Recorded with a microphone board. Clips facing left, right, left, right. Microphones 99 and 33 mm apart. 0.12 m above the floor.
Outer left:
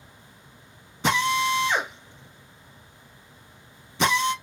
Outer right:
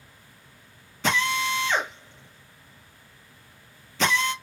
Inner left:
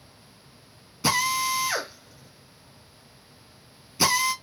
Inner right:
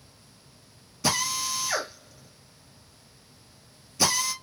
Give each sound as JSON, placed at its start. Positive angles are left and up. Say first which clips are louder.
{"t": 1.0, "sound": "a drill", "louder": "outer left 3 dB, inner left 4 dB", "side_deg": 15, "distance_m": 2.5}